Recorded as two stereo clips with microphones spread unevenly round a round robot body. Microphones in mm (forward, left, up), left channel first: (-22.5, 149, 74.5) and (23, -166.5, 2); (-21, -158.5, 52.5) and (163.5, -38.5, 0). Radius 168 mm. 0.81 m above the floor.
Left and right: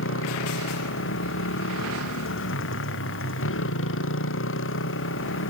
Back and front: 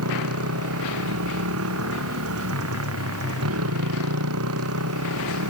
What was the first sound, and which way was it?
A motorcycle, 45° left.